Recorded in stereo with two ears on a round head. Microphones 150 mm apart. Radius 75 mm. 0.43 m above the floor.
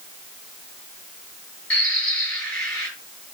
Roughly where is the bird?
Centre.